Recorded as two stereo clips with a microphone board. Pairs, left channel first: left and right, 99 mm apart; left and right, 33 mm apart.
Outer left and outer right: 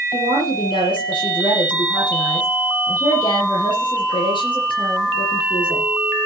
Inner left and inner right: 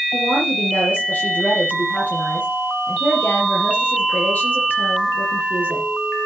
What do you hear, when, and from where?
0.1 s a woman speaking: 55° left (ahead or behind), 7 m